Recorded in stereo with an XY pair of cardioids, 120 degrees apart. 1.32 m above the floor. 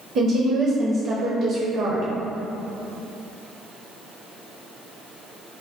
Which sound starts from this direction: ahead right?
A woman speaking, at 0.1 s.